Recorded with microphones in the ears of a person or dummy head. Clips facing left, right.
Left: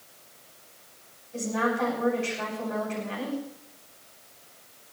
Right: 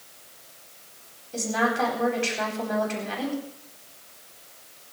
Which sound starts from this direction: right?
A woman speaking, at 1.3 s.